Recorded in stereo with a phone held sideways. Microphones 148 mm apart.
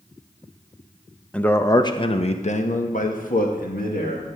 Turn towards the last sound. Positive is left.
turn(degrees=75)  # may be behind; listen again after turning